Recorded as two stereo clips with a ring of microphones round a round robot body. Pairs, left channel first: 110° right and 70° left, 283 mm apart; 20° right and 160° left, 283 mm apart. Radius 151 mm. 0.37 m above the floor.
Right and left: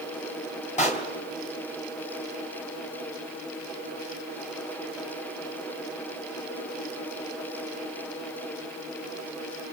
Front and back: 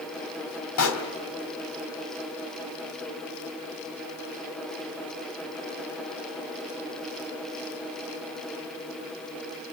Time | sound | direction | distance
0.8 | a pop | 50° right | 3 m